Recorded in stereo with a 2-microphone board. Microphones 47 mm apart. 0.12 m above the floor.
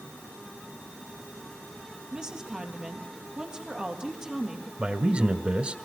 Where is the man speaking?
25° right (ahead or behind), 1.5 m.